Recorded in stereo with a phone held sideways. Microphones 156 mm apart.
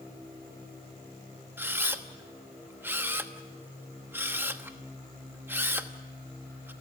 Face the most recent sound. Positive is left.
turn(degrees=-15)  # may be behind; listen again after turning